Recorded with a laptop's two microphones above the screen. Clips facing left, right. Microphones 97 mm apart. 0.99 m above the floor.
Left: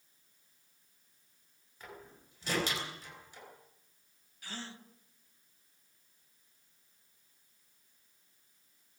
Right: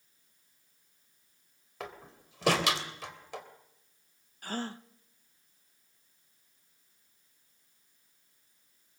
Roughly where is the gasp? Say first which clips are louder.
Right 9 dB; right.